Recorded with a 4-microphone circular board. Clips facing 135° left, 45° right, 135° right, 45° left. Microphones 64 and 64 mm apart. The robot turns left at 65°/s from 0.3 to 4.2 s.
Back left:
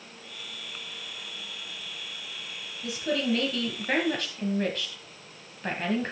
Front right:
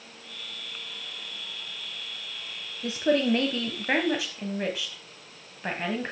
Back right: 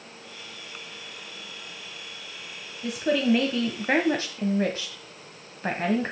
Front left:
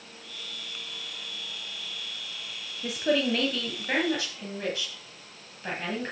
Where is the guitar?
I don't hear a guitar.